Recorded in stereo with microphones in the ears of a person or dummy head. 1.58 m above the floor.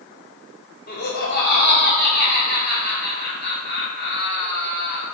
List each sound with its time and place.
0.9 s laughter: 60° left (ahead or behind), 1.7 m